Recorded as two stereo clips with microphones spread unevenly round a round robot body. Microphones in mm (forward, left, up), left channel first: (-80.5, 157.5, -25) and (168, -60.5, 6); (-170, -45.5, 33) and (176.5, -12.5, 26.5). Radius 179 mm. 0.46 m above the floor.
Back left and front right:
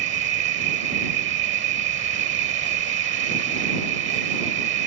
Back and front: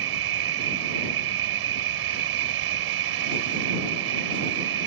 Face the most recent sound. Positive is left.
turn(degrees=15)